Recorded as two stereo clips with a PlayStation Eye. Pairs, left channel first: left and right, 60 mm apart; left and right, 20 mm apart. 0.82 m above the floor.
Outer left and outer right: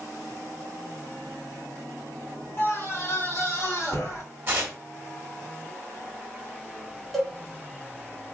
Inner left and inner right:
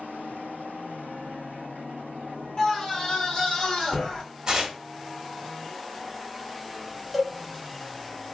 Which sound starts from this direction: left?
A scream, at 2.6 s.